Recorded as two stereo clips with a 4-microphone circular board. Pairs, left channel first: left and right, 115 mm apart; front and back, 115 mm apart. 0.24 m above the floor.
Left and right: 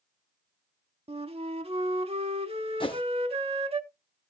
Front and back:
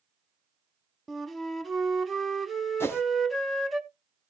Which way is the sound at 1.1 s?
90° right.